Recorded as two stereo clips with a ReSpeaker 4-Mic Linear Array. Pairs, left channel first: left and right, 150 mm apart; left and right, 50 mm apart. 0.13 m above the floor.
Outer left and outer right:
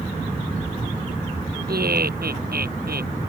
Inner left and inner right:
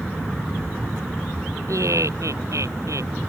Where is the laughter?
75° right (ahead or behind).